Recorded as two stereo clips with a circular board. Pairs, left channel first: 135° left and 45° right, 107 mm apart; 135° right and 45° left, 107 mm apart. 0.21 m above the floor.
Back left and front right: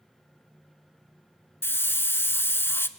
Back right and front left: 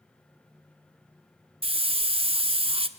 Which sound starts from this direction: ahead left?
A hiss, at 1.6 s.